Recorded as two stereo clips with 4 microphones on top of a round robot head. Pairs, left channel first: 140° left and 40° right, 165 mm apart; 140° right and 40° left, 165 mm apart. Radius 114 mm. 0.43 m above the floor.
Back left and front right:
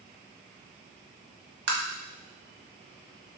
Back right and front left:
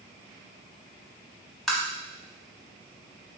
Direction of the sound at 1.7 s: 50° right.